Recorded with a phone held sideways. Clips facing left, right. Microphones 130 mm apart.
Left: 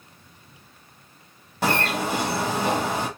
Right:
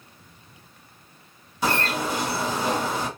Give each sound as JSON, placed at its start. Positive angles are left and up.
{"t": 1.6, "sound": "a bird", "side_deg": 60, "distance_m": 1.9}